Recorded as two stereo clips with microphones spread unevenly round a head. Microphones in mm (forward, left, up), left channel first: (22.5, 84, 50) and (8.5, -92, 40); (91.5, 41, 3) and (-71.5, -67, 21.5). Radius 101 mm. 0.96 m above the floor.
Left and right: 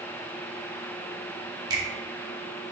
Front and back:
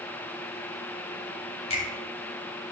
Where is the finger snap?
25° right, 1.9 m.